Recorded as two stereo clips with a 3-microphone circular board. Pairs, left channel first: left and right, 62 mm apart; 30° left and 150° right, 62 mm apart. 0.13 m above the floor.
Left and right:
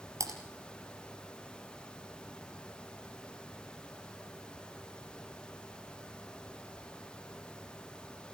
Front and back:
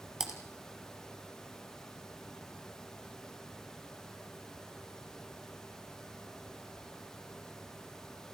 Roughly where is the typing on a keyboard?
Right.